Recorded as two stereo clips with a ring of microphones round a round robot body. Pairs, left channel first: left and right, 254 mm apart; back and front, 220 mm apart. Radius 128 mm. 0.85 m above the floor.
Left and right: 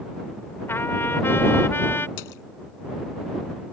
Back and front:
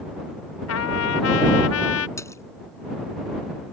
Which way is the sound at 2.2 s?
105° left.